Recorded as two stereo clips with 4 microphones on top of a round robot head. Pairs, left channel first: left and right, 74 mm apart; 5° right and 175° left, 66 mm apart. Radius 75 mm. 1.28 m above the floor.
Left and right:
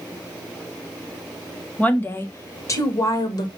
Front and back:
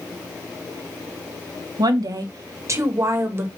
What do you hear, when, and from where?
1.8 s a woman speaking: 160° left, 1.6 m; by 3.5 s 120° left, 2.5 m